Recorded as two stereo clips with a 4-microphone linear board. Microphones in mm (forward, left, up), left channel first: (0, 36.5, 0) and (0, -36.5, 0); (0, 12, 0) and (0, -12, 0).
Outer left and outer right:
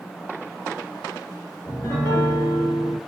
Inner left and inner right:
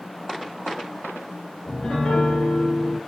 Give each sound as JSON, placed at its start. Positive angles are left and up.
{"t": 1.6, "sound": "a piano", "side_deg": 35, "distance_m": 1.4}